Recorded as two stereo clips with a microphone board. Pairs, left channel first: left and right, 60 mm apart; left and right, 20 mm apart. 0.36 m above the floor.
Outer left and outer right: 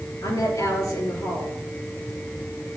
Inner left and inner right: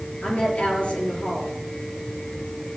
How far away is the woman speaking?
About 6 m.